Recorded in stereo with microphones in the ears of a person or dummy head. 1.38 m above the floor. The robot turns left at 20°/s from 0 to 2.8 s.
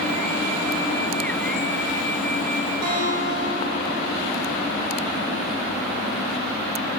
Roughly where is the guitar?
Right.